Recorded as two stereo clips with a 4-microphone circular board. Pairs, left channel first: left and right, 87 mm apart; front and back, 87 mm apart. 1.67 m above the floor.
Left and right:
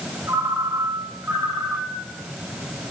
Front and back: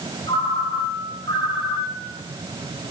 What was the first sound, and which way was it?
A ringtone, 30° right.